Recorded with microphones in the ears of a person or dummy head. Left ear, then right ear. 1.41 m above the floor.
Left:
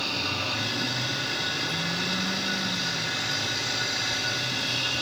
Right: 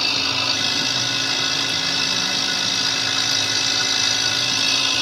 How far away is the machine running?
About 0.8 m.